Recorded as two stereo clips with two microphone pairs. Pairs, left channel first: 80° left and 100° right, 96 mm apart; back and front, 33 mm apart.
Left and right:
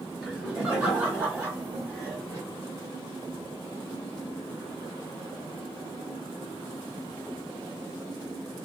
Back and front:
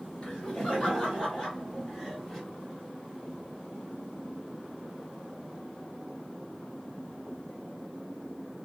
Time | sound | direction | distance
0.2 | laughter | 175° left | 1.9 m